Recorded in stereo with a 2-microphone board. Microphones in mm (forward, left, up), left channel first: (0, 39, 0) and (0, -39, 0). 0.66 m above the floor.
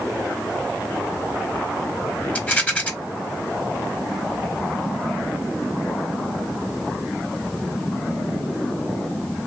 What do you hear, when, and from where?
2.4 s a rattle: 20° left (ahead or behind), 0.9 m